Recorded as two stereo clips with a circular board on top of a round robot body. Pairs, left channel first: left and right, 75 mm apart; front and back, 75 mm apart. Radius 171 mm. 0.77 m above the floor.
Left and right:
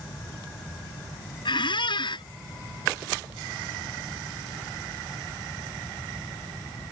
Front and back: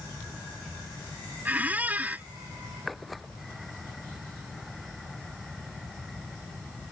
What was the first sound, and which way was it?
A squeak, 110° left.